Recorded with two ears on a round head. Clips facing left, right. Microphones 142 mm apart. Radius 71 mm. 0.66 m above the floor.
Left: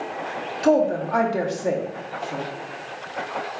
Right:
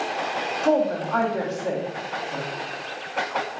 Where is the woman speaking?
15° left (ahead or behind), 0.9 m.